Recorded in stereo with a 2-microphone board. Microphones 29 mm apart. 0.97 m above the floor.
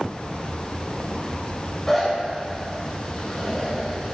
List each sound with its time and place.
1.9 s a zipper: 10° left (ahead or behind), 4.5 m